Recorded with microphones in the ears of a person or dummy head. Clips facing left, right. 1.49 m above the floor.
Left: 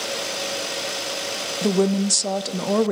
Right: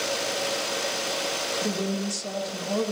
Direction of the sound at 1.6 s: 60° left (ahead or behind).